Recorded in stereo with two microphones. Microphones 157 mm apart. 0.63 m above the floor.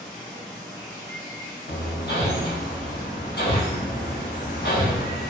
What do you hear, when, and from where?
0.0 s running water: 25° left (ahead or behind), 0.9 m
1.7 s hammering: 80° left, 0.6 m